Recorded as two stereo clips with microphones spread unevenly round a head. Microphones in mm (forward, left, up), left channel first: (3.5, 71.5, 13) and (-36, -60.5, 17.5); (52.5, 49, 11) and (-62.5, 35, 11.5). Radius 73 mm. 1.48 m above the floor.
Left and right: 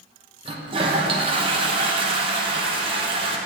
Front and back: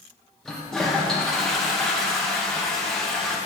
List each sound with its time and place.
0.5 s a toilet flushing: 80° right, 0.7 m